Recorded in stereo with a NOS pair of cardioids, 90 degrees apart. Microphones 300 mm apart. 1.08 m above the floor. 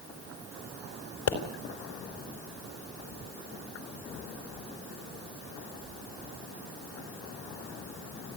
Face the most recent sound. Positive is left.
turn(degrees=65)